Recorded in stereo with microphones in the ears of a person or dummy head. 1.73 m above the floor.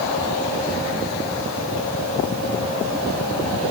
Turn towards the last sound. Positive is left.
No sound to turn to.